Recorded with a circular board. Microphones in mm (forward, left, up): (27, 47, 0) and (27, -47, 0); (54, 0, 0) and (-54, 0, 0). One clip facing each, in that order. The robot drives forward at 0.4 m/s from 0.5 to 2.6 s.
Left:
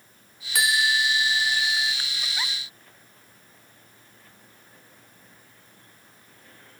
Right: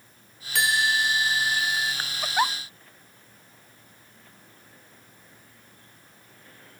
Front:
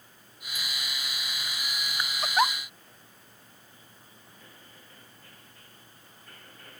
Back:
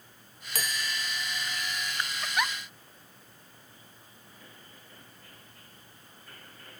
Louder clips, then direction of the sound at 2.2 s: Right 13 dB, front 7 dB; 50° right.